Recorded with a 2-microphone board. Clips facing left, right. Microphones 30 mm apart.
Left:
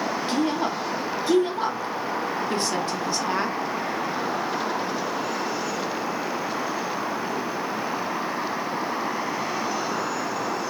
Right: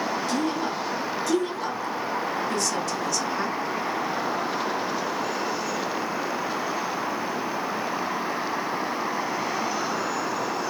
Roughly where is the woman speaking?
Left.